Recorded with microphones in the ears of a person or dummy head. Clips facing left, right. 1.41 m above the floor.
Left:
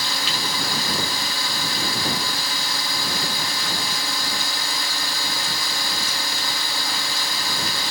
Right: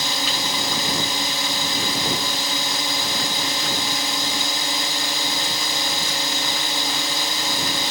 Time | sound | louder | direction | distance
0.0 | a drone | right 2 dB | 20° right (ahead or behind) | ?